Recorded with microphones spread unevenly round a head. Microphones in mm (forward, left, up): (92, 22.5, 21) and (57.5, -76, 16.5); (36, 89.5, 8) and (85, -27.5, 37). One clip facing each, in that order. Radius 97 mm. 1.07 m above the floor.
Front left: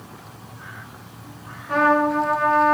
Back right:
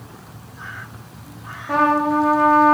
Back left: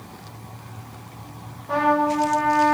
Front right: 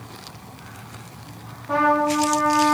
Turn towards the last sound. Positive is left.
turn(degrees=-165)